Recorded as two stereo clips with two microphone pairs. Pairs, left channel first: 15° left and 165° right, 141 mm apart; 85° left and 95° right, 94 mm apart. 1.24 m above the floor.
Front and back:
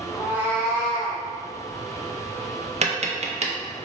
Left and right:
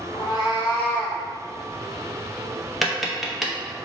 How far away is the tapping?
About 0.6 m.